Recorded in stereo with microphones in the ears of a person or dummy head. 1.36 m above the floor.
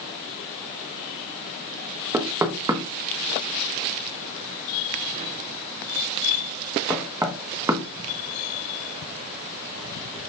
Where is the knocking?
15° right (ahead or behind), 1.2 m.